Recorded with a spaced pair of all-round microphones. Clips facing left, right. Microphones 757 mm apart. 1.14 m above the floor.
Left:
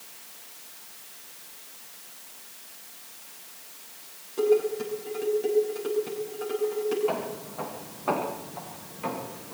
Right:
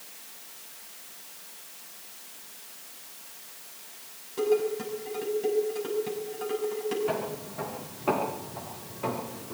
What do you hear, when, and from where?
4.4 s dishes clattering: 35° right (ahead or behind), 6.5 m
7.1 s footsteps: 50° right (ahead or behind), 6 m; by 9.6 s 65° right (ahead or behind), 6.5 m